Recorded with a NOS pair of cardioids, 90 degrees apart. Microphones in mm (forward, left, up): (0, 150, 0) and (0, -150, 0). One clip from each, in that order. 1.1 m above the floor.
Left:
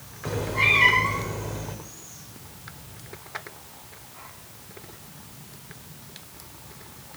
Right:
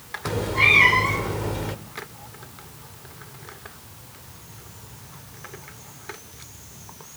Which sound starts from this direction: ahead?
A cat meowing, at 0.2 s.